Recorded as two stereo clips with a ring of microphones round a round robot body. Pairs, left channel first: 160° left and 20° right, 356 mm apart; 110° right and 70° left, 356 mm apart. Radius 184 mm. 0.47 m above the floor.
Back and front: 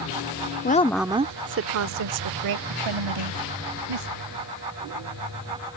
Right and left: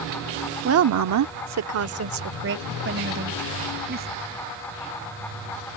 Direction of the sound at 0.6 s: 105° left.